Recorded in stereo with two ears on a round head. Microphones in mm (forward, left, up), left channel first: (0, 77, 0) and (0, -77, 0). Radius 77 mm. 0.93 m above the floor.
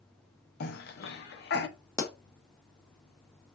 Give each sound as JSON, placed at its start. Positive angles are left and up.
{"t": 0.6, "sound": "a cough", "side_deg": 60, "distance_m": 0.6}
{"t": 2.0, "sound": "a pop", "side_deg": 15, "distance_m": 0.5}